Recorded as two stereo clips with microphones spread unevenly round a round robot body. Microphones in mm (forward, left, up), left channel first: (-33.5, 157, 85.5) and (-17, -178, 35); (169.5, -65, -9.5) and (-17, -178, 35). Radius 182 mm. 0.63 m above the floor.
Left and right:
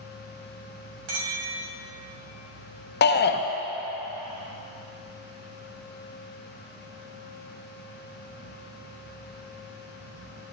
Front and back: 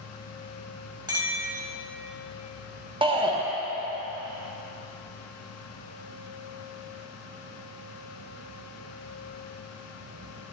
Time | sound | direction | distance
1.1 | a clink | 75° right | 2.5 m
3.0 | a shout | 140° left | 0.6 m